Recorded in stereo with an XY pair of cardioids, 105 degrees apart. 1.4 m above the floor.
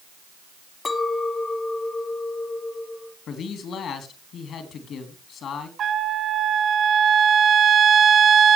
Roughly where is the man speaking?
Ahead left.